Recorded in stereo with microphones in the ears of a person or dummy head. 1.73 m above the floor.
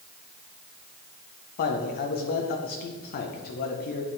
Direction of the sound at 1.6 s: 50° left (ahead or behind).